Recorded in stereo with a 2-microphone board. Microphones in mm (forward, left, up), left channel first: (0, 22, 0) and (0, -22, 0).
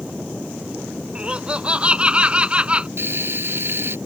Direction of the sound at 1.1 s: 25° right (ahead or behind).